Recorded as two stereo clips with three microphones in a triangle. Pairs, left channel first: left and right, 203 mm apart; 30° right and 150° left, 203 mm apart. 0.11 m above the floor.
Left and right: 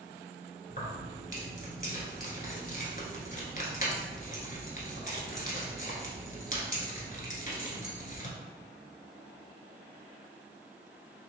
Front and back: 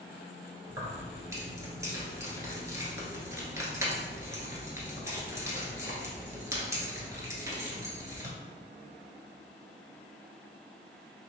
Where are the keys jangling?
85° left, 1.0 m.